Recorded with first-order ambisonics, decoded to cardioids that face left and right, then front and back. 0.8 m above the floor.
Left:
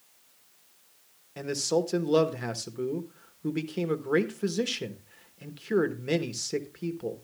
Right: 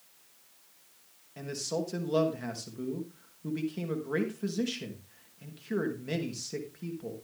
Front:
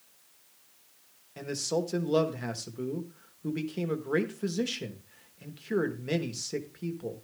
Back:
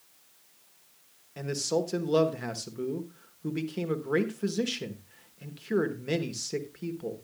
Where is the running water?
No running water in this recording.